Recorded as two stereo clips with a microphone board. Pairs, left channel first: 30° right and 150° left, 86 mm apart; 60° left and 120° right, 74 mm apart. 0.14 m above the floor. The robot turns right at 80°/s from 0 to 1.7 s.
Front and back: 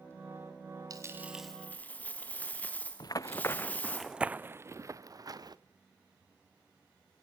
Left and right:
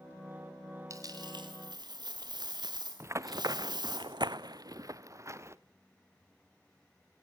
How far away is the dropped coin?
About 3.5 m.